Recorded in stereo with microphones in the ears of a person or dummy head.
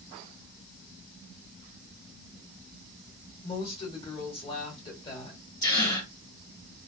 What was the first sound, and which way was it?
A woman speaking, 25° left (ahead or behind).